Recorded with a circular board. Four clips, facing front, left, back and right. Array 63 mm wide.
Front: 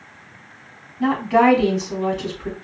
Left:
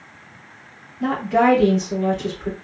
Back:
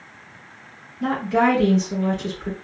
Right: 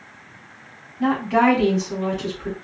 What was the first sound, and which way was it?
A woman speaking, 35° right.